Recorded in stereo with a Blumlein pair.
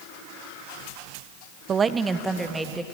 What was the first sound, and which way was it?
A woman speaking, 25° right.